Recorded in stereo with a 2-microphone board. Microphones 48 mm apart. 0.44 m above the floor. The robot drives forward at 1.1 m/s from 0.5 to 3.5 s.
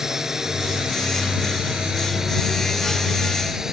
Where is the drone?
10° right (ahead or behind).